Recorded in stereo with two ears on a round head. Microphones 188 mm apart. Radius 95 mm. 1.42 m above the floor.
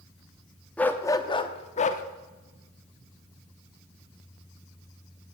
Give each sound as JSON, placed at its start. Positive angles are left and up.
{"t": 0.8, "sound": "a dog barking", "side_deg": 5, "distance_m": 0.9}